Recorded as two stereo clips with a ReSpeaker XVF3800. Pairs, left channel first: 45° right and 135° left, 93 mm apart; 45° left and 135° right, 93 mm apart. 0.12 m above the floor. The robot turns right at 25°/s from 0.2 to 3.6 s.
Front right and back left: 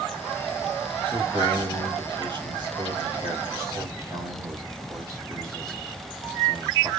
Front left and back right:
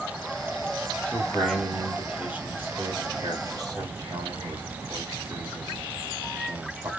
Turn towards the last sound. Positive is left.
turn(degrees=-175)